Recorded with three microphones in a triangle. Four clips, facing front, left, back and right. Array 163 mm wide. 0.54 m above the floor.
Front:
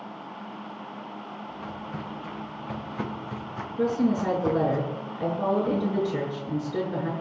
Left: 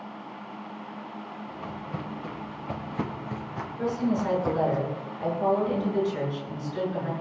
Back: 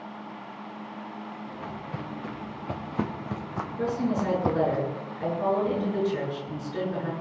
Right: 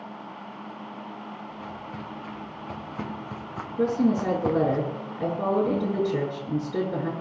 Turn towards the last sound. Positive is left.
turn(degrees=-65)